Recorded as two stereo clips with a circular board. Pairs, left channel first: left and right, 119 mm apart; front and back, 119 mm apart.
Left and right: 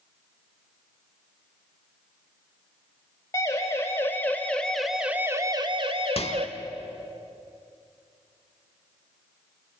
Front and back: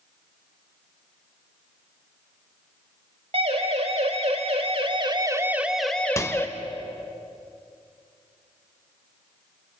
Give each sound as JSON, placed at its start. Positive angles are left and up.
{"t": 3.3, "sound": "a siren", "azimuth_deg": 150, "distance_m": 3.5}
{"t": 6.2, "sound": "a microwave", "azimuth_deg": 65, "distance_m": 1.3}